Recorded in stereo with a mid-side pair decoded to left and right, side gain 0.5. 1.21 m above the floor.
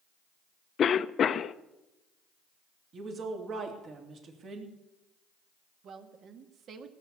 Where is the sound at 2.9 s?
50° right, 3 m.